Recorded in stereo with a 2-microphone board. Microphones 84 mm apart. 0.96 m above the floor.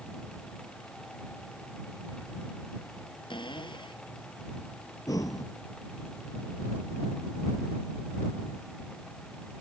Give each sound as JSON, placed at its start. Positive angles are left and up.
{"t": 3.3, "sound": "a cupboard door", "side_deg": 75}
{"t": 5.1, "sound": "breathing", "side_deg": 45}